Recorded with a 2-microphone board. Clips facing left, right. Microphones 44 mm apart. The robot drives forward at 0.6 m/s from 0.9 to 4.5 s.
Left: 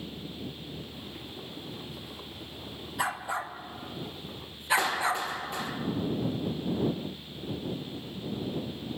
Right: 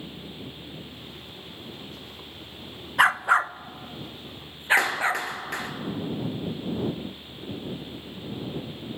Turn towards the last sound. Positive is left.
turn(degrees=-70)  # may be behind; listen again after turning